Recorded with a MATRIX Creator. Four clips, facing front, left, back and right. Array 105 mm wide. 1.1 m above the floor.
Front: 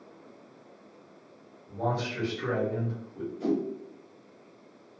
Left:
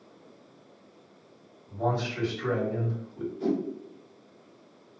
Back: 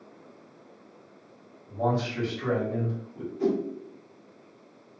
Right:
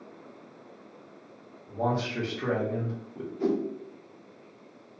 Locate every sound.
1.7 s a man speaking: 95° right, 1.1 m
3.4 s a whoosh: 145° right, 0.9 m